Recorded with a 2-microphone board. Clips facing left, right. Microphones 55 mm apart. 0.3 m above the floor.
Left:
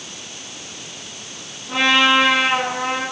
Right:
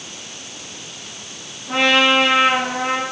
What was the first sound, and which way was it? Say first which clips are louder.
A trumpet: even; 20° right (ahead or behind).